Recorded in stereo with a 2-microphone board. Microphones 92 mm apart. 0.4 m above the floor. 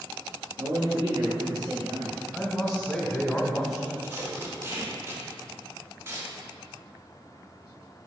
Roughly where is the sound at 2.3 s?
Centre.